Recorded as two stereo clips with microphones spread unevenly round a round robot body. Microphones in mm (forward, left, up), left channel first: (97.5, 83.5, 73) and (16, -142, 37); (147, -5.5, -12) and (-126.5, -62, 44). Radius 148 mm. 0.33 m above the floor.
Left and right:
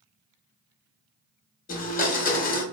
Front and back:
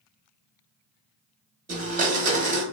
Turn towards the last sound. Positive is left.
turn(degrees=125)